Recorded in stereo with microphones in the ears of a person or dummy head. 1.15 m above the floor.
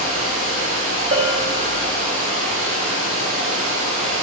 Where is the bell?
30° right (ahead or behind), 0.6 m.